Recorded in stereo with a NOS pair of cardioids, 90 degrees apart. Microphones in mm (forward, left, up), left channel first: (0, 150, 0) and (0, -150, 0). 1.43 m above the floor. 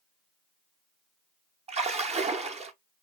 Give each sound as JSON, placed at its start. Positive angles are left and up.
{"t": 1.7, "sound": "a splash", "azimuth_deg": -20, "distance_m": 1.0}